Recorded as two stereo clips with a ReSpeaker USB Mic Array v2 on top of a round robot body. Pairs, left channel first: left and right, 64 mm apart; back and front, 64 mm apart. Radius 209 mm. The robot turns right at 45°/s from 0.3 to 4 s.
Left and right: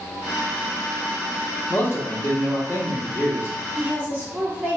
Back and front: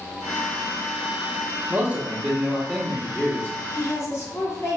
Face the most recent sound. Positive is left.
turn(degrees=-150)